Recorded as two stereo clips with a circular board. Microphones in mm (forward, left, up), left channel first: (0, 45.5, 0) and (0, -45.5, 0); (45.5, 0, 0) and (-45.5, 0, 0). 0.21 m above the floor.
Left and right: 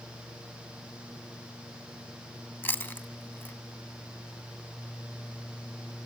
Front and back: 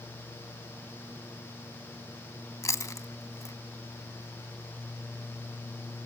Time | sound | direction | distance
2.6 | chewing | 30° left | 0.7 m